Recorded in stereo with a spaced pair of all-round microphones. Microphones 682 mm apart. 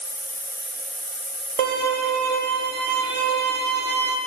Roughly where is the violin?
Right.